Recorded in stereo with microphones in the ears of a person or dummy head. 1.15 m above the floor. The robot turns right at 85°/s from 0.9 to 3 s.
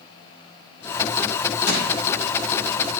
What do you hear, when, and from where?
1.7 s crushing: 90° left, 5.5 m; by 1.9 s 75° left (ahead or behind), 5.5 m